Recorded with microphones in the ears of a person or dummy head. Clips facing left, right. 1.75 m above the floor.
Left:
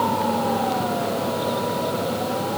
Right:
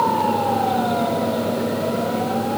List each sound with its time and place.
Only background noise.